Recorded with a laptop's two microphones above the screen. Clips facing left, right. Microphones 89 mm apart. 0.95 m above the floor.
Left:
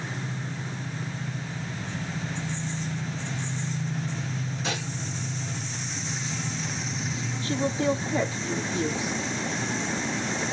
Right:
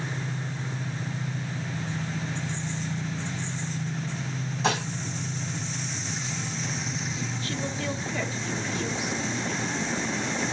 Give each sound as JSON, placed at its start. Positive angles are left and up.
{"t": 4.6, "sound": "dishes clattering", "side_deg": -75, "distance_m": 5.0}
{"t": 7.4, "sound": "a woman speaking", "side_deg": 30, "distance_m": 1.6}